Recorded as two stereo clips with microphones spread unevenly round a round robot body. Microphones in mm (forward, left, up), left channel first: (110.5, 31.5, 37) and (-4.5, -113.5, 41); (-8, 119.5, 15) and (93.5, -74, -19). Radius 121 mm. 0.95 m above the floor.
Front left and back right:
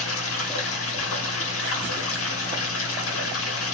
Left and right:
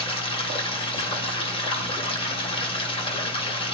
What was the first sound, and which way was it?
Running water, 55° left.